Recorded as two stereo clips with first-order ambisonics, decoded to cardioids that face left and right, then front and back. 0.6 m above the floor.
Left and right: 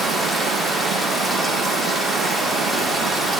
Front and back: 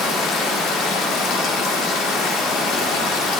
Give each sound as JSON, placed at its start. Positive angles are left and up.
{"t": 0.0, "sound": "running water", "azimuth_deg": 5, "distance_m": 1.2}